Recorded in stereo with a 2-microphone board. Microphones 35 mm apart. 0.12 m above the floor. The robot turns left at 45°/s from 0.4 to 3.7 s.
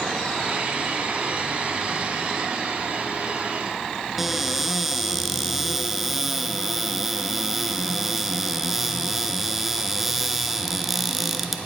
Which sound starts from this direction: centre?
A cupboard door, at 4.2 s.